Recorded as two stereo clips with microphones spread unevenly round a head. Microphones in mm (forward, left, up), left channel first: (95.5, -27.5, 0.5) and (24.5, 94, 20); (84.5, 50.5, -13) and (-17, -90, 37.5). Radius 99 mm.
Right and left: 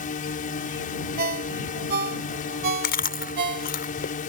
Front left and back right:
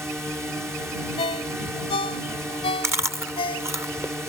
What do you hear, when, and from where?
0.0 s a drone: 45° right
1.2 s a ringtone: 125° left
2.8 s chewing: 50° right